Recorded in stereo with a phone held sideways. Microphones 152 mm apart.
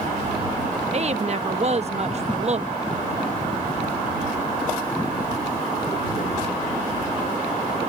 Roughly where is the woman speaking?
Right.